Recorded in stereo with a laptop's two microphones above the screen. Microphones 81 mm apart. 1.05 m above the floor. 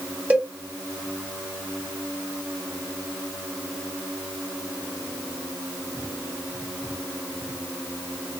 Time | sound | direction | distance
0.3 | a cowbell | 20° right (ahead or behind) | 1.1 m